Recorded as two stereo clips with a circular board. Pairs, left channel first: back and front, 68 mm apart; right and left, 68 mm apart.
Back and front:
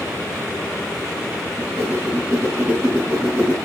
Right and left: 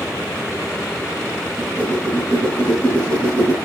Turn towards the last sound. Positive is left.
turn(degrees=-55)